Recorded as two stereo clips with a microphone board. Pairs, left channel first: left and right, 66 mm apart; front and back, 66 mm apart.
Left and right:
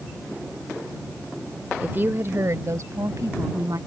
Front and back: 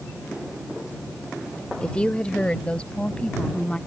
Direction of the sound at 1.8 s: 60° right.